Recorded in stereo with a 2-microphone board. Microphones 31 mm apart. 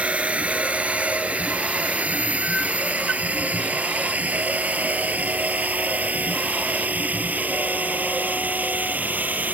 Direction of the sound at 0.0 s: 40° right (ahead or behind).